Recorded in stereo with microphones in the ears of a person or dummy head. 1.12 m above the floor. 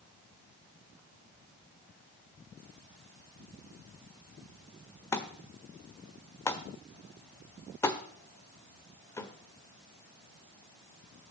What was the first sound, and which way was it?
A thud, 20° left (ahead or behind).